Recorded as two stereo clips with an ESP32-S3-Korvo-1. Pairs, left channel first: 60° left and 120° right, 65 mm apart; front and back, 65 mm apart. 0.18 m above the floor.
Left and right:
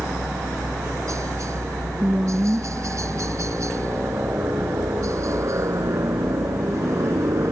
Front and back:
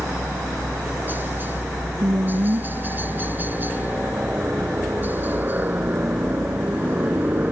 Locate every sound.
0.0 s a helicopter: 130° right
2.0 s a woman speaking: 165° left